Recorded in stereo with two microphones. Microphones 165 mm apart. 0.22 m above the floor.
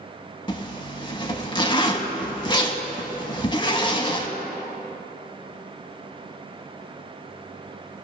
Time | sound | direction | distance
0.5 | a zipper | 30° left (ahead or behind) | 0.6 m